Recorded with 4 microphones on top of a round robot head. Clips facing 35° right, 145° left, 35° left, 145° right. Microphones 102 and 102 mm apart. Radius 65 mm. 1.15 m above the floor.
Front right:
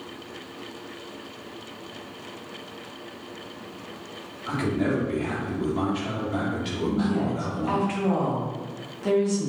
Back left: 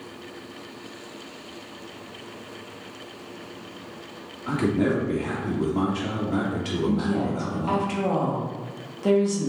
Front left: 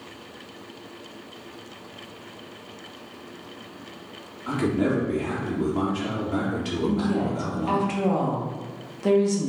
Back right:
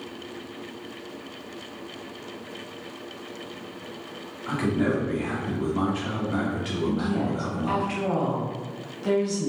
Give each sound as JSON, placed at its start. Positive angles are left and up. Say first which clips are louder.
{"t": 4.5, "sound": "a man speaking", "louder": "back left 2 dB, front left 1 dB", "azimuth_deg": 100, "distance_m": 3.0}
{"t": 6.8, "sound": "a woman speaking", "louder": "even, front left 1 dB", "azimuth_deg": 85, "distance_m": 1.7}